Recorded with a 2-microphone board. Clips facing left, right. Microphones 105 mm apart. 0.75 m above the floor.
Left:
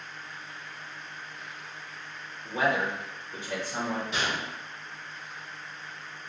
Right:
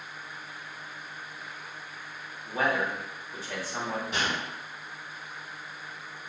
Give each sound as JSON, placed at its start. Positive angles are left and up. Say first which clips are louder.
{"t": 2.5, "sound": "a man speaking", "louder": "left 1 dB", "side_deg": 20, "distance_m": 1.0}
{"t": 4.1, "sound": "a gunshot", "louder": "even", "side_deg": -45, "distance_m": 1.4}